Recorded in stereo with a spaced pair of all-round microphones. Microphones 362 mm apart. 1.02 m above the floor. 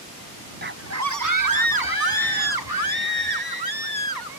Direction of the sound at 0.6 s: 25° right (ahead or behind).